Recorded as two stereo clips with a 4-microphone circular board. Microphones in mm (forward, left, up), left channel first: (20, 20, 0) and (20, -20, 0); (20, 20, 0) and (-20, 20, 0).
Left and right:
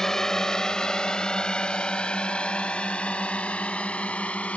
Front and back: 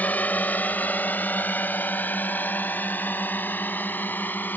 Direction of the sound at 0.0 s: 15° left.